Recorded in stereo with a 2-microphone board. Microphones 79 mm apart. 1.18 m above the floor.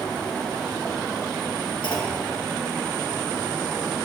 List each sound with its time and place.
1.8 s a clunk: 70° left (ahead or behind), 1.6 m